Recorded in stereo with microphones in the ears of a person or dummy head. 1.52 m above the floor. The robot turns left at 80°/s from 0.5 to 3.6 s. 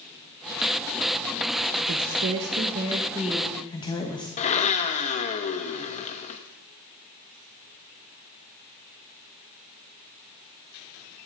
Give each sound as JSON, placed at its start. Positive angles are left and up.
{"t": 1.9, "sound": "a woman speaking", "azimuth_deg": -65, "distance_m": 0.8}
{"t": 4.4, "sound": "a blender", "side_deg": 35, "distance_m": 0.6}